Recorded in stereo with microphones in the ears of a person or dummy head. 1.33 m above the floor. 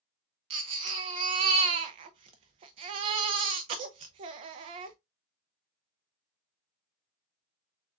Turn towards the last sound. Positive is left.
turn(degrees=-35)  # may be behind; listen again after turning